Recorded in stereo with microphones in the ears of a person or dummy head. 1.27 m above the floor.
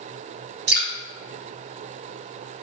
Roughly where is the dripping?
Right.